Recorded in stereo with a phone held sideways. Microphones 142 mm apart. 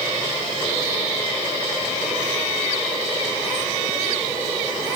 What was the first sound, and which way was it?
Only background noise.